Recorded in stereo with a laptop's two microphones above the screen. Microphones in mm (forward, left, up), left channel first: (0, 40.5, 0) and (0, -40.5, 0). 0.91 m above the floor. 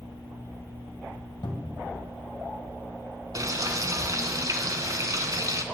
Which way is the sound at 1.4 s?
65° left (ahead or behind).